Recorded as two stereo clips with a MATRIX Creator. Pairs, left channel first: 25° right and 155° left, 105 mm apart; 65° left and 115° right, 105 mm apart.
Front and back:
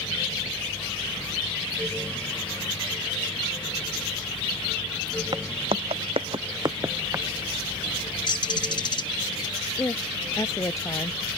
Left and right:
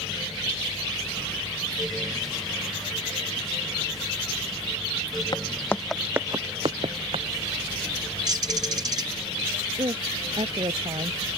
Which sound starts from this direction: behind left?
Footsteps, at 5.3 s.